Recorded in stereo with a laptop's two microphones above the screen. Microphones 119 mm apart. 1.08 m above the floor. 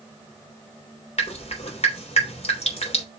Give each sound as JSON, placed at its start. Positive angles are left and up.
{"t": 1.2, "sound": "dripping", "side_deg": 60, "distance_m": 3.5}